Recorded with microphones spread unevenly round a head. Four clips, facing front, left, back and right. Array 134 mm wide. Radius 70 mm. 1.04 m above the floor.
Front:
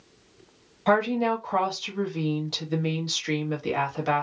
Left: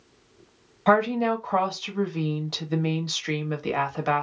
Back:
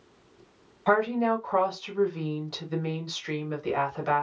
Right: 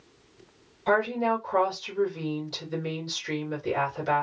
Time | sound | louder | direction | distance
0.9 | a woman speaking | left 3 dB, front 1 dB | 65° left | 1.3 m